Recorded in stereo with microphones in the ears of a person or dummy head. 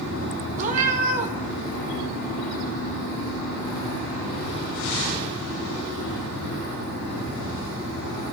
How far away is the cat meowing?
About 0.9 m.